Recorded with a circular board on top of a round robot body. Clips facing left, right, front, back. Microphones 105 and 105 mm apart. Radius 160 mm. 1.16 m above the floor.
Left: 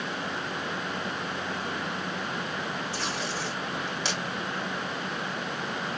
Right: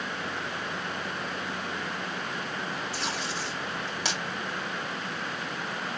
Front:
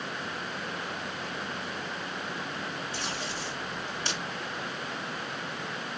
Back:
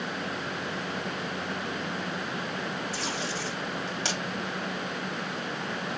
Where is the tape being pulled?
175° right, 3 m.